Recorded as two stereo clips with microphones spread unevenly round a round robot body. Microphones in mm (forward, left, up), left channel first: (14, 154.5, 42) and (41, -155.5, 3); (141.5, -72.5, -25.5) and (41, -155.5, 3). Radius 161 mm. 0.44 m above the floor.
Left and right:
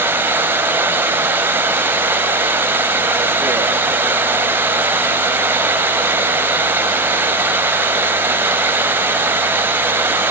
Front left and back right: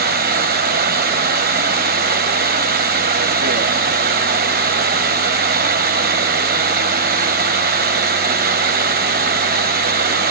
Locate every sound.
0.0 s running water: 170° right, 0.7 m